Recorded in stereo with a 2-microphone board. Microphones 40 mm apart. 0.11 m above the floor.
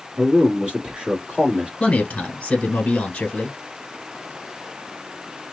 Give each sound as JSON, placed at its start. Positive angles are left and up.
{"t": 0.2, "sound": "a man speaking", "side_deg": -30, "distance_m": 1.3}
{"t": 1.8, "sound": "a man speaking", "side_deg": 25, "distance_m": 1.1}